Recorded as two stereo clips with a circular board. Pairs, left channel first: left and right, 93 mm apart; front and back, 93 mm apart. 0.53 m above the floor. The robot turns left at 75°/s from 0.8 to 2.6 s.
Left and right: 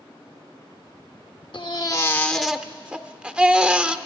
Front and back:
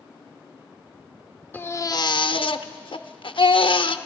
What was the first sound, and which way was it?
A baby crying, 65° left.